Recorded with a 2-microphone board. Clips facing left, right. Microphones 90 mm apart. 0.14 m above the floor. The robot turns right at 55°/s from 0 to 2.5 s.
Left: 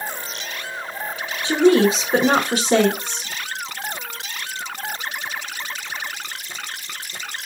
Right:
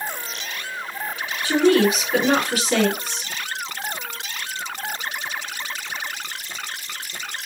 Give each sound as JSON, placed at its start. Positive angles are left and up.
{"t": 1.4, "sound": "a woman speaking", "side_deg": 25, "distance_m": 1.3}